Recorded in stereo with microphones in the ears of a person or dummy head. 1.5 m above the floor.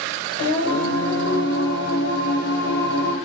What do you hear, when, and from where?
0.4 s singing: 55° left (ahead or behind), 0.9 m